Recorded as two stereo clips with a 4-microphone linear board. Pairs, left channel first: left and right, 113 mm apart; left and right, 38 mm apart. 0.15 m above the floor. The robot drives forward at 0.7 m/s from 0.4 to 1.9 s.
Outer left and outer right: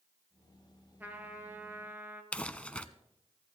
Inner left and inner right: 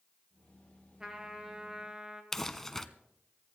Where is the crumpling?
10° left (ahead or behind), 0.6 m.